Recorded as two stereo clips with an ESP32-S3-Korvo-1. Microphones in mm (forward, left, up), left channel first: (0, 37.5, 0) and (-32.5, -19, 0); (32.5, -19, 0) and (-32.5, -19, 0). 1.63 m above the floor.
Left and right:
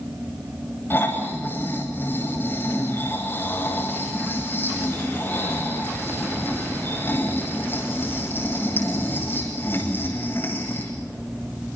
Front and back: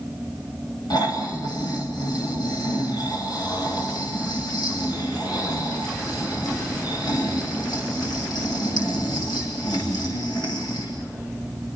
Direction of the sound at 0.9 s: Straight ahead.